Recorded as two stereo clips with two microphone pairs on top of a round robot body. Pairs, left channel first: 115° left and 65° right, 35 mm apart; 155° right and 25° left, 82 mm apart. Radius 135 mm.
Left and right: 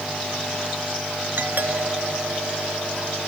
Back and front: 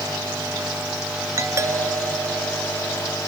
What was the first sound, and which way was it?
A doorbell, 30° right.